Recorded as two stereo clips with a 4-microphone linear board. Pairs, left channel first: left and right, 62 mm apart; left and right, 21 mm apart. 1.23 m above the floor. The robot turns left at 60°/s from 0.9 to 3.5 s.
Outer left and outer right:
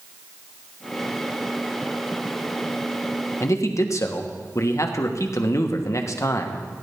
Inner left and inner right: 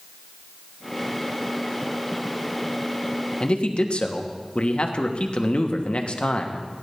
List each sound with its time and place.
3.4 s a man speaking: 50° left (ahead or behind), 1.2 m; by 6.6 s 55° left (ahead or behind), 1.2 m